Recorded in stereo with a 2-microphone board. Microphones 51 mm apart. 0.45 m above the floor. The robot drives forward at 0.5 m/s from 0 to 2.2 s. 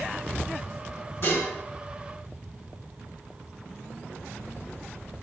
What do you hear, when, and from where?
1.2 s dishes clattering: 50° left (ahead or behind), 1.7 m; by 1.5 s 45° left (ahead or behind), 1.8 m